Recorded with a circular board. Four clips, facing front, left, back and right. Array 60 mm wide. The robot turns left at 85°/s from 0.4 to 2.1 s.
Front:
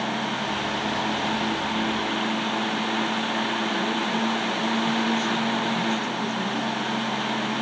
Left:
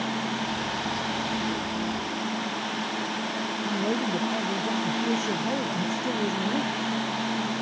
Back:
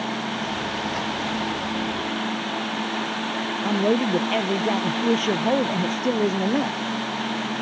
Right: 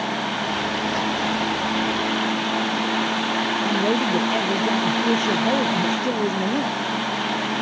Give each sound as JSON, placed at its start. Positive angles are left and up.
{"t": 3.6, "sound": "a man speaking", "azimuth_deg": -150}